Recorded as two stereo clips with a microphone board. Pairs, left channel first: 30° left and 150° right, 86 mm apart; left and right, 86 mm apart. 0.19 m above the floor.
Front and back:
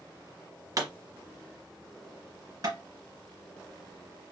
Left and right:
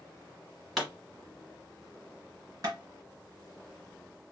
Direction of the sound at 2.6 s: 125° right.